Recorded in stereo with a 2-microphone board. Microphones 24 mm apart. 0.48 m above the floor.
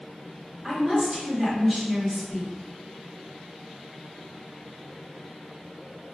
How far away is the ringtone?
No ringtone in this recording.